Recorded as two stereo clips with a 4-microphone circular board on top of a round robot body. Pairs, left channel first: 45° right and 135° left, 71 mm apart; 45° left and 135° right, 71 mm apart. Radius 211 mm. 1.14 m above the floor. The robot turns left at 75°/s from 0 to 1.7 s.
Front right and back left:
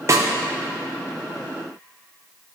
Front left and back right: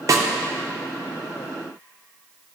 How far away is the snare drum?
About 0.6 m.